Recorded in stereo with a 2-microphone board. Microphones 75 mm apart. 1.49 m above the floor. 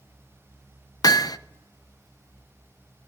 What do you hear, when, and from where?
1.0 s hammering: 60° left (ahead or behind), 0.9 m